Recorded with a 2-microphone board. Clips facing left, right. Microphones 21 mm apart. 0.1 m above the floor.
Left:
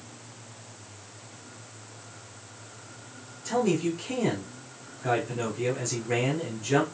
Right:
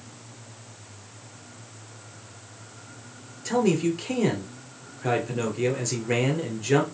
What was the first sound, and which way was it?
A man speaking, 25° right (ahead or behind).